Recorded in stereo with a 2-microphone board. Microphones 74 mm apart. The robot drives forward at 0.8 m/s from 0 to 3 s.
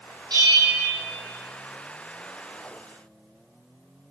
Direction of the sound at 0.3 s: 65° right (ahead or behind).